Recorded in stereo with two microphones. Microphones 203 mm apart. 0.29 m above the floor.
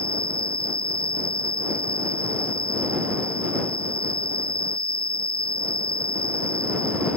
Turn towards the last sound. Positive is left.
turn(degrees=45)  # may be behind; listen again after turning